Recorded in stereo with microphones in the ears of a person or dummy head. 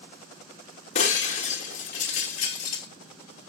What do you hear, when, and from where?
0.9 s breaking glass: 40° left (ahead or behind), 1.5 m